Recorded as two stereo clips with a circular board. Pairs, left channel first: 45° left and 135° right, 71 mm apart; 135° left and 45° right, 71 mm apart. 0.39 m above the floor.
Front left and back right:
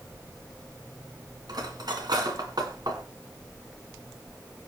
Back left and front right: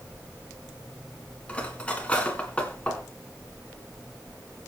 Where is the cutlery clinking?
155° right, 2.5 m.